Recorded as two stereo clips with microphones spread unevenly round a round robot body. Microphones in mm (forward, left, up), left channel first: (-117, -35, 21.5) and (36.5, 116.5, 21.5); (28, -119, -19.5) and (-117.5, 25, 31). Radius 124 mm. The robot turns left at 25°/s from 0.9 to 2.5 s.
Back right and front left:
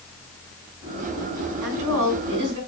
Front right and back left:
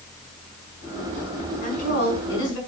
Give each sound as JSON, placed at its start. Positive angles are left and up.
{"t": 1.6, "sound": "a woman speaking", "azimuth_deg": 15, "distance_m": 5.5}